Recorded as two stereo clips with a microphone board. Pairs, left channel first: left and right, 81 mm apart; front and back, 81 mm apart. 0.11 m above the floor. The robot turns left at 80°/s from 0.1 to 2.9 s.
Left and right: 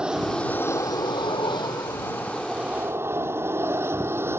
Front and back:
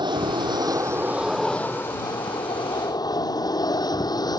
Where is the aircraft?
170° right; by 4.4 s 30° right.